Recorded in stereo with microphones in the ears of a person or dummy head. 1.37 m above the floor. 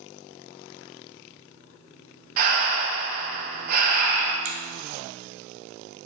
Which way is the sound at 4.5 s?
75° right (ahead or behind).